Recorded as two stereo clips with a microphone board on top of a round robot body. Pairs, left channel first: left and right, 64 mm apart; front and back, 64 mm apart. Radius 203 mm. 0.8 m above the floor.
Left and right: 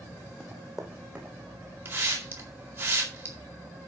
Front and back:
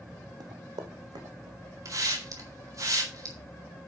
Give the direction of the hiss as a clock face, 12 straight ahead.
5 o'clock.